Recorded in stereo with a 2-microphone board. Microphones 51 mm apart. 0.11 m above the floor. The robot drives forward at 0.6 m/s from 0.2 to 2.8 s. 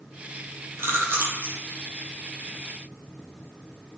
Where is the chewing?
50° right (ahead or behind), 0.7 m; by 1.5 s 35° right (ahead or behind), 1.0 m.